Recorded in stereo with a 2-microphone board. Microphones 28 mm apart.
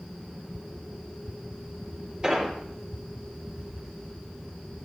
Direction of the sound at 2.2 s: 30° right (ahead or behind).